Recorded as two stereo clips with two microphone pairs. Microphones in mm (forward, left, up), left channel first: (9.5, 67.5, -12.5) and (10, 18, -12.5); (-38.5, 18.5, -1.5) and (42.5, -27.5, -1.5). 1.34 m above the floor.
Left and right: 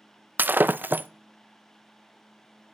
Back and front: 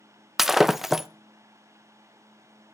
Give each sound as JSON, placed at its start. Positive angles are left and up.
{"t": 0.4, "sound": "breaking glass", "azimuth_deg": -115, "distance_m": 0.5}